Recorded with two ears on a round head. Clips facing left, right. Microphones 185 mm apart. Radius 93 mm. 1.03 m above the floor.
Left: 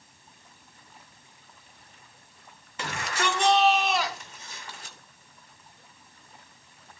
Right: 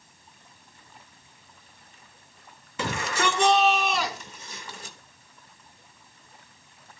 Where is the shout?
75° right (ahead or behind), 3 m.